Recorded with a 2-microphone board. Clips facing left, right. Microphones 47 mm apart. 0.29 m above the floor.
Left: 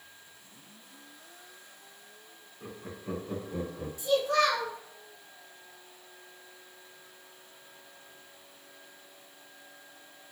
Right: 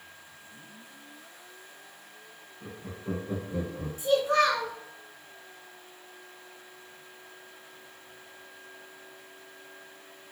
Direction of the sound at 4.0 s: 35° right (ahead or behind).